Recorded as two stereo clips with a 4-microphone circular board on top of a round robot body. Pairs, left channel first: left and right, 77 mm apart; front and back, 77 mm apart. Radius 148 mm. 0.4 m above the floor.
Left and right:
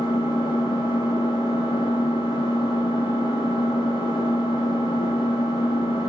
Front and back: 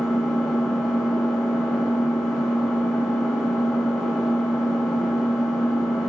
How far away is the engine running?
About 5 m.